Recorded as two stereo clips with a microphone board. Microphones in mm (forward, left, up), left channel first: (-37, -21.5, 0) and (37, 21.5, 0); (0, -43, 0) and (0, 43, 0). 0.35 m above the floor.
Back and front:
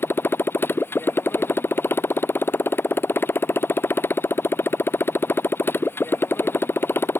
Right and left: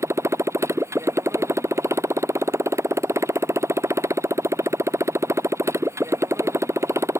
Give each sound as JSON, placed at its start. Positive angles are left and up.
{"t": 0.0, "sound": "a motorcycle", "azimuth_deg": 145}